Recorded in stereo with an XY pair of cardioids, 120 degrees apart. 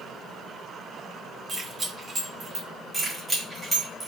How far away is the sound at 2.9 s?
About 1.8 m.